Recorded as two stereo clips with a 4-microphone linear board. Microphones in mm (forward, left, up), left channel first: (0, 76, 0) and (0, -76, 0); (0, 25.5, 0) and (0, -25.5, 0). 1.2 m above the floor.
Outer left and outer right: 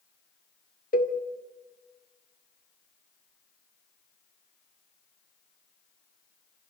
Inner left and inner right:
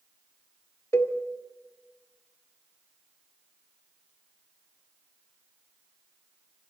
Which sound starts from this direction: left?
A cowbell, at 0.9 s.